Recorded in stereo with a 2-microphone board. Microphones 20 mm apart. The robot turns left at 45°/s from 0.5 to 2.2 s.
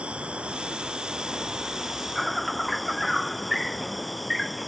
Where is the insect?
105° right; by 4.7 s straight behind.